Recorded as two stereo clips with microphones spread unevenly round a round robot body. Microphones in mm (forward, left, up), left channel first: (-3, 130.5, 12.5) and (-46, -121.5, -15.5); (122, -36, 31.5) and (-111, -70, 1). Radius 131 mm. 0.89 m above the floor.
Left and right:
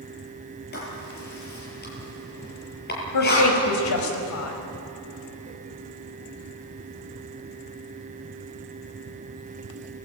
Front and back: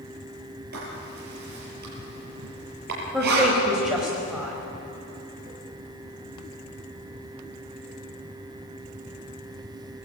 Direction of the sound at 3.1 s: 100° left.